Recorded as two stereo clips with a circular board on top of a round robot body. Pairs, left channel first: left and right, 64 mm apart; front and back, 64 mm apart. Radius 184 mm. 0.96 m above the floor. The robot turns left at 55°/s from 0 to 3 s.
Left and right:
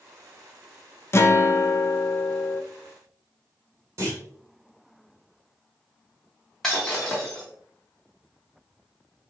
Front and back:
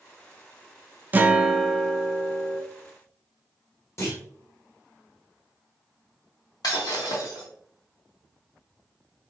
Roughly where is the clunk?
Ahead right.